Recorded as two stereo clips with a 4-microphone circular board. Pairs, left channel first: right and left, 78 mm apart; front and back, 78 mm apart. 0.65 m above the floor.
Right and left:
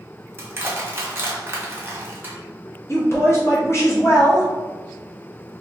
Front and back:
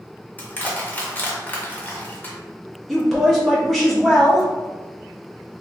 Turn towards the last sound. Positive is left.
turn(degrees=-90)